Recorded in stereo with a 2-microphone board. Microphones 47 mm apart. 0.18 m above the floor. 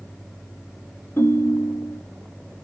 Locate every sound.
1.2 s a ringtone: 60° left (ahead or behind), 1.8 m